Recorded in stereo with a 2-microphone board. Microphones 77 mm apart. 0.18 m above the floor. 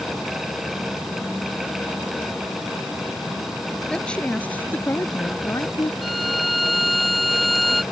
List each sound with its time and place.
3.9 s a woman speaking: 10° left (ahead or behind); by 5.9 s 45° left (ahead or behind)
6.0 s a violin: centre (ahead or behind)